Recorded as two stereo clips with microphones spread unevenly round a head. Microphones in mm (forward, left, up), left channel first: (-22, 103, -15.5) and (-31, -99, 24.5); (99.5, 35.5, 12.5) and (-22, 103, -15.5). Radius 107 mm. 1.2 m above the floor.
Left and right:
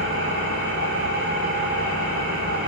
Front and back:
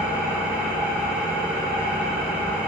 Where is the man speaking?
I don't hear a man speaking.